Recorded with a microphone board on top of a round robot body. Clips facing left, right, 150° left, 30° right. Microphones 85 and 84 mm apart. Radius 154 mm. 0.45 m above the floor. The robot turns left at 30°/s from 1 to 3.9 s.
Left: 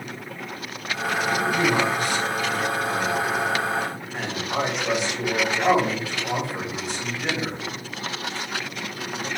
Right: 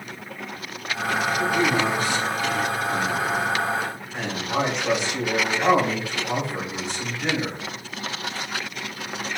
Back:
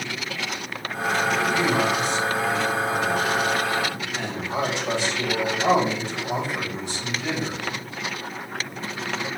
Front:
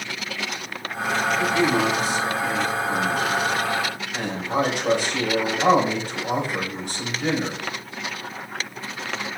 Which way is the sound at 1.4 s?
80° left.